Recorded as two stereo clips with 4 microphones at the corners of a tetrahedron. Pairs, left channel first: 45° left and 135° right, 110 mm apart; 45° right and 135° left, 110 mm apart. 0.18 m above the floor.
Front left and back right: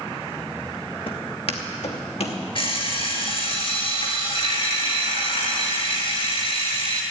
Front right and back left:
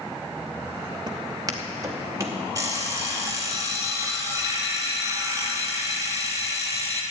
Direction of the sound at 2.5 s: 80° left.